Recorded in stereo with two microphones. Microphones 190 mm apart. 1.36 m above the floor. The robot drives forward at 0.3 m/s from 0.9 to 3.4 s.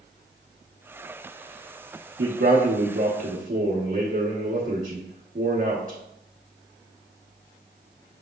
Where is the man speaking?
65° right (ahead or behind), 0.8 m; by 6.0 s 45° right (ahead or behind), 1.0 m.